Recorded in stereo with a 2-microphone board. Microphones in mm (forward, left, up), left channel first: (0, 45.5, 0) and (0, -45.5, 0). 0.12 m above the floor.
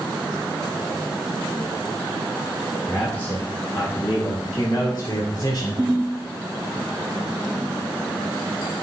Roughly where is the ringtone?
Right.